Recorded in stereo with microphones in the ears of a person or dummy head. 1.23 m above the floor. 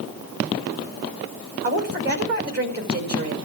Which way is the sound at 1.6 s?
60° right (ahead or behind).